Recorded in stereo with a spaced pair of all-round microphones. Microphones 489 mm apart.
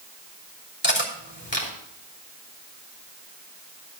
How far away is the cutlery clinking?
About 3 m.